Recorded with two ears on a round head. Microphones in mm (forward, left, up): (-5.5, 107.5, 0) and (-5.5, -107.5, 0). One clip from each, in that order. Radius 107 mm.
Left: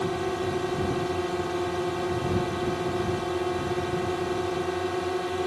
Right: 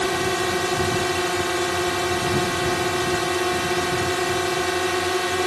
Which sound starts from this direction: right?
A drone, at 0.0 s.